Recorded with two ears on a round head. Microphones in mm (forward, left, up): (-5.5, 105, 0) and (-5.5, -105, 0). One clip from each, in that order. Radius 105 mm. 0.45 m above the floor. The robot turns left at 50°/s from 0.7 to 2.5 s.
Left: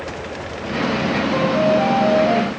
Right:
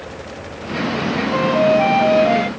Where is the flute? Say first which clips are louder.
Right 3 dB; 25° right; by 2.5 s 85° right.